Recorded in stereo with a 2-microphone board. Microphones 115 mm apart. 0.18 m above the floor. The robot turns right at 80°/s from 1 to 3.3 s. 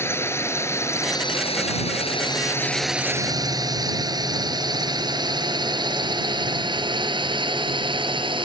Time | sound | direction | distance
0.0 | a drone | 20° left (ahead or behind) | ?